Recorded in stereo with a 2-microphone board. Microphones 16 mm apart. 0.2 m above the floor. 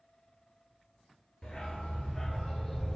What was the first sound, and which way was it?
A dog barking, 65° left (ahead or behind).